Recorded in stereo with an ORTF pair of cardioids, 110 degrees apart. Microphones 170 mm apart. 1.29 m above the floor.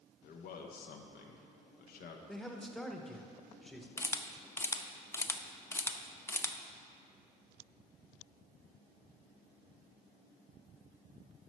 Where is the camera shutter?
15° left, 0.6 m.